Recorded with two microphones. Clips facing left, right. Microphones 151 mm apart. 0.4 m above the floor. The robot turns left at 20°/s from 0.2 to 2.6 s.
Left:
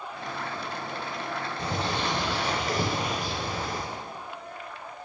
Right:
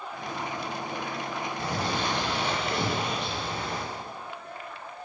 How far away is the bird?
About 3 m.